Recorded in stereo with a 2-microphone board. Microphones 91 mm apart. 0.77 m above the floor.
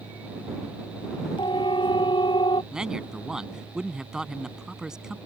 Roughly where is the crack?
I don't hear a crack.